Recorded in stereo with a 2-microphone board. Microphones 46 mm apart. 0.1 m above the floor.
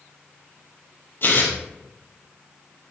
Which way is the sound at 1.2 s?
50° left (ahead or behind).